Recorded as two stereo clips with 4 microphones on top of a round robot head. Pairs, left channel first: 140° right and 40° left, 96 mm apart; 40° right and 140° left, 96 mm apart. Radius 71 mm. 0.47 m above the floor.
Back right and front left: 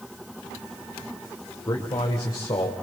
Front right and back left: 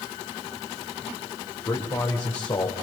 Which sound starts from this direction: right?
A man speaking, at 1.7 s.